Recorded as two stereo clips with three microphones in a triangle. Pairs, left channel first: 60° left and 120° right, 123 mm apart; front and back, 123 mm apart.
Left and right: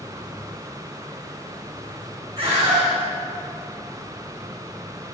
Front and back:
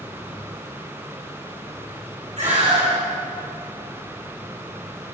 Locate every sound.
2.4 s a scream: 160° right, 4.5 m